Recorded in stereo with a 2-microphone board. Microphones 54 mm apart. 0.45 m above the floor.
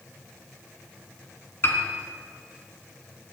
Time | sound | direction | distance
1.6 | a piano | 45° left (ahead or behind) | 4 m